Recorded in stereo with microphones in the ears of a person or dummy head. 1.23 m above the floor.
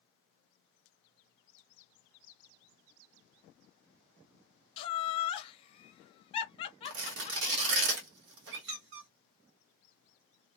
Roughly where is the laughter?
Left.